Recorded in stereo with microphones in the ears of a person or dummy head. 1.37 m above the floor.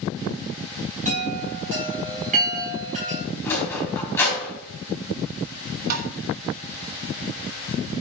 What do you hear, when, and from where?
1.1 s a chime: 40° right (ahead or behind), 4 m
3.5 s a sliding door: 10° left (ahead or behind), 4 m
5.9 s tapping: 45° right (ahead or behind), 1.1 m